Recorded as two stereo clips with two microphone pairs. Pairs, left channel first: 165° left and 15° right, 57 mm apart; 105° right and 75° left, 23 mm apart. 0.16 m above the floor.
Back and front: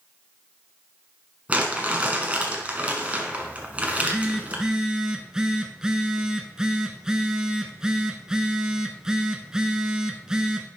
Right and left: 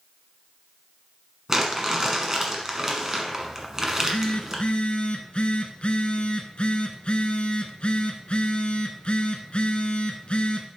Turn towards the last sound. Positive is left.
turn(degrees=-85)